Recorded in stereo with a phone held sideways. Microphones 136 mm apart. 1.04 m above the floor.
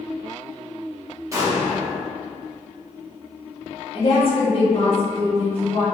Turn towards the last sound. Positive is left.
turn(degrees=45)  # may be behind; listen again after turning